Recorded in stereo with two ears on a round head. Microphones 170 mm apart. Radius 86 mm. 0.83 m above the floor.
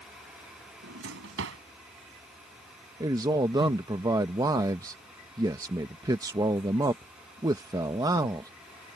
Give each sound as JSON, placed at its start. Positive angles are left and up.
{"t": 0.8, "sound": "a drawer", "side_deg": -80}
{"t": 3.0, "sound": "a man speaking", "side_deg": -20}